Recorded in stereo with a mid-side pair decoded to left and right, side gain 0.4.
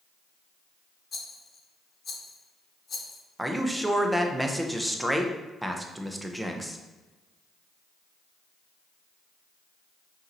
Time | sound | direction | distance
1.1 | a rattle | 50° left | 1.1 m
3.4 | a man speaking | 10° right | 0.8 m